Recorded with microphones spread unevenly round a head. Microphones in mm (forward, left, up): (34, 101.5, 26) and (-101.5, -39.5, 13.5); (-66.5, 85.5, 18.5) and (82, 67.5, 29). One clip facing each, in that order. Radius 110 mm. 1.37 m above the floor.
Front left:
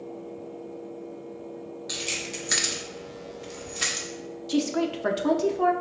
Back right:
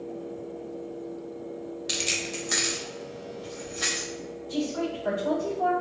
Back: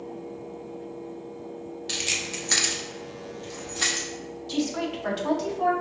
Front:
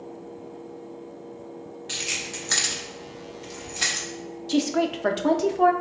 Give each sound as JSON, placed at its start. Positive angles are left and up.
{"t": 1.9, "sound": "keys jangling", "azimuth_deg": -160, "distance_m": 0.6}
{"t": 4.5, "sound": "a woman speaking", "azimuth_deg": 25, "distance_m": 0.6}